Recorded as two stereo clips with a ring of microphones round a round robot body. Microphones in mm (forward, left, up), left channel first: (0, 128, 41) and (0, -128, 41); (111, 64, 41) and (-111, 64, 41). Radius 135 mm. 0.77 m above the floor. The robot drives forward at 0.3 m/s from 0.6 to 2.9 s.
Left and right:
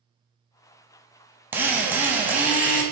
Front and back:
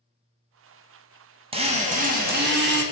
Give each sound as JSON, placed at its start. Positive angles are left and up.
{"t": 1.5, "sound": "a drill", "azimuth_deg": -165, "distance_m": 0.6}